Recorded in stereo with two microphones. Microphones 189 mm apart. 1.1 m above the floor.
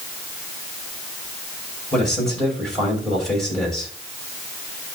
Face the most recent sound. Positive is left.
turn(degrees=0)  # may be behind; listen again after turning